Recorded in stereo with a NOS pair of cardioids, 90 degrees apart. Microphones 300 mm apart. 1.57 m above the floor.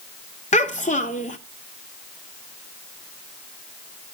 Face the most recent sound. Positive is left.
turn(degrees=25)